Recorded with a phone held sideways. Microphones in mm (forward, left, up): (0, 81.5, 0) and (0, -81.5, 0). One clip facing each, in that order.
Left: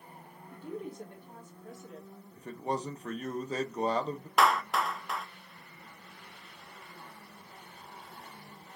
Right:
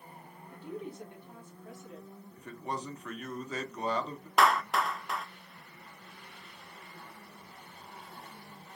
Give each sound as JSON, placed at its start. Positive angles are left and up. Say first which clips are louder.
{"t": 0.5, "sound": "a woman speaking", "louder": "left 1 dB", "side_deg": 50, "distance_m": 2.0}
{"t": 2.4, "sound": "a man speaking", "louder": "left 4 dB", "side_deg": 35, "distance_m": 0.8}
{"t": 4.4, "sound": "a clap", "louder": "right 1 dB", "side_deg": 0, "distance_m": 0.8}